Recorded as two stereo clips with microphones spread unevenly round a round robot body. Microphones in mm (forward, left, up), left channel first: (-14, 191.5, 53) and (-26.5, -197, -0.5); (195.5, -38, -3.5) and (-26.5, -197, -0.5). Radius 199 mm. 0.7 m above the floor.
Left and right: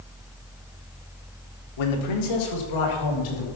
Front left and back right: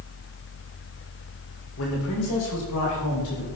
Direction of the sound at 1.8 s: 85° left.